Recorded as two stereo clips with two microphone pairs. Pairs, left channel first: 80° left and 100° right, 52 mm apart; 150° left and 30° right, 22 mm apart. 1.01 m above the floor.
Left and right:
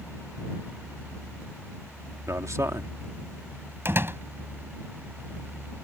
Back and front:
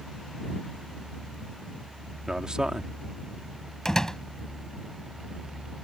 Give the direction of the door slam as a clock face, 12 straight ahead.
5 o'clock.